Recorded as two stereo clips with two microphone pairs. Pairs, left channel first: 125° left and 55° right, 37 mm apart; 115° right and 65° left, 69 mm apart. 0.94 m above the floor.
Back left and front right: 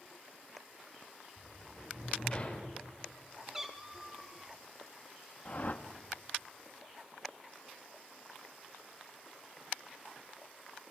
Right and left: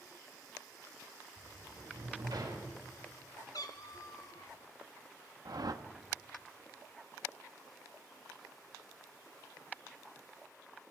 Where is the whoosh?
85° left, 1.2 m.